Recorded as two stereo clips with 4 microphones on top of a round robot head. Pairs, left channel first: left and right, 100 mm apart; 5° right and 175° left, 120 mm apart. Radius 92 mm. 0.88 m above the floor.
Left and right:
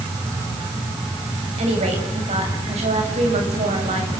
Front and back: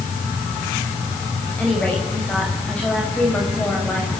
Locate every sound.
1.6 s a woman speaking: 85° right, 6.5 m